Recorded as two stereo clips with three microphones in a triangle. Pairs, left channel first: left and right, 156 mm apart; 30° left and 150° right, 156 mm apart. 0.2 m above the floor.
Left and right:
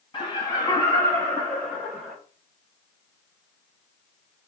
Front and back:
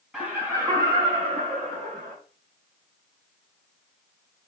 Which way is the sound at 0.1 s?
130° left.